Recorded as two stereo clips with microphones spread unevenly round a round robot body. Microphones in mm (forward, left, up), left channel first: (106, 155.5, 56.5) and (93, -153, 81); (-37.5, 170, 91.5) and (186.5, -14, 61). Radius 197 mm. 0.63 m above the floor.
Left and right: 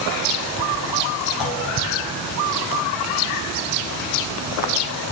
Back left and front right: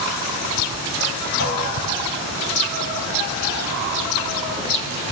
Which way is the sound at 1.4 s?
100° left.